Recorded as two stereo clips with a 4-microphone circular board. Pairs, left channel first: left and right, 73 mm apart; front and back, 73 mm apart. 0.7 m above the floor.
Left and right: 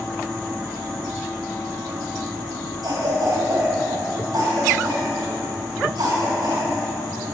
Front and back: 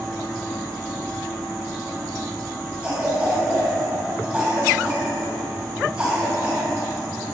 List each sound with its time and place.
2.8 s a cough: 105° right, 3.5 m